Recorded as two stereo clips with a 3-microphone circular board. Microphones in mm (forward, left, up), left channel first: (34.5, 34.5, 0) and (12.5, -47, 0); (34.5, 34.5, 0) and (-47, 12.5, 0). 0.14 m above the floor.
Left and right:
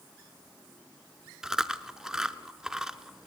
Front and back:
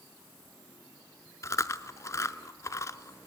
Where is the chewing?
25° right, 0.7 m.